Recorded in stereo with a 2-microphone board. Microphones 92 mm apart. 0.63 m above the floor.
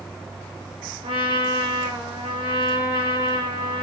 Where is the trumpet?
70° right (ahead or behind), 1.4 m.